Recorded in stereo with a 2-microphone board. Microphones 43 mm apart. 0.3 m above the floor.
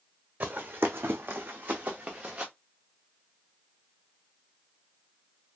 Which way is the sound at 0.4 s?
55° right (ahead or behind).